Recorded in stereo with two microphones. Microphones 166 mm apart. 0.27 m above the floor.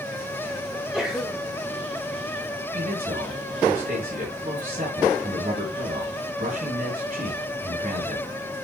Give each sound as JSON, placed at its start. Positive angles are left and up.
{"t": 0.7, "sound": "a sneeze", "side_deg": -5, "distance_m": 1.0}
{"t": 2.7, "sound": "a man speaking", "side_deg": -65, "distance_m": 5.0}